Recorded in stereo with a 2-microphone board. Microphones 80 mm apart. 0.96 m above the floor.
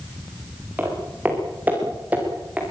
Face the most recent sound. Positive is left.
turn(degrees=-20)  # may be behind; listen again after turning